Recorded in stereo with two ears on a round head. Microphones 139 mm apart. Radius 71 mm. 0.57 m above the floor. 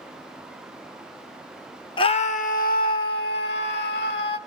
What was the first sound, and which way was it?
A scream, 30° left (ahead or behind).